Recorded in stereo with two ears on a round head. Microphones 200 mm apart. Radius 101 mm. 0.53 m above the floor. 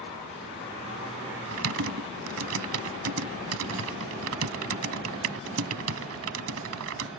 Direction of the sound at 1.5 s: 70° right (ahead or behind).